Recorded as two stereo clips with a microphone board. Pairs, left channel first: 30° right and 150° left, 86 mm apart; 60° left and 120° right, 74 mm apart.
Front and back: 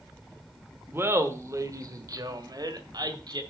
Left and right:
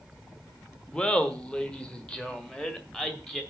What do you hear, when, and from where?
0.9 s laughter: 125° left, 1.3 m; by 3.4 s 135° left, 2 m